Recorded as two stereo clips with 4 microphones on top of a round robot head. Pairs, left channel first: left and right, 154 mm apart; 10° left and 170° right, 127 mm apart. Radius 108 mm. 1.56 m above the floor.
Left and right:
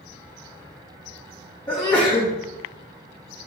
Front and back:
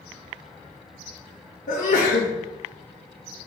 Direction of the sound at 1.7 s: 25° left.